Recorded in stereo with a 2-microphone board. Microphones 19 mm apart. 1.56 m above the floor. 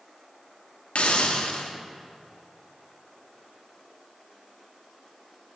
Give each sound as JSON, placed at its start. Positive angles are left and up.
{"t": 0.9, "sound": "a hiss", "side_deg": 85, "distance_m": 1.2}